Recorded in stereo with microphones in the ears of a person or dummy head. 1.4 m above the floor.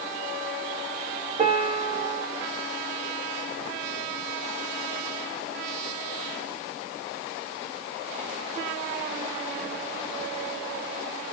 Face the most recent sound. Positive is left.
turn(degrees=-35)  # may be behind; listen again after turning